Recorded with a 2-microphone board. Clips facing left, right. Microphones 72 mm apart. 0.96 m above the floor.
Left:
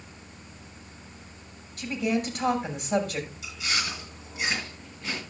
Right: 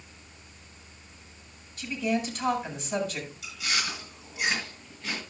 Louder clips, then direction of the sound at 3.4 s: Right 3 dB; 20° left (ahead or behind).